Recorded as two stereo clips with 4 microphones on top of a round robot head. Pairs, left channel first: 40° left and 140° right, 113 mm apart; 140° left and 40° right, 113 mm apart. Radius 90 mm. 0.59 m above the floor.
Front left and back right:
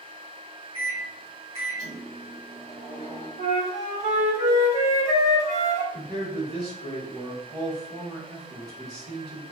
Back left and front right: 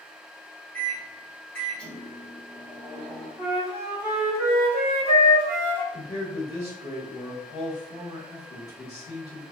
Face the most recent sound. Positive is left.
turn(degrees=180)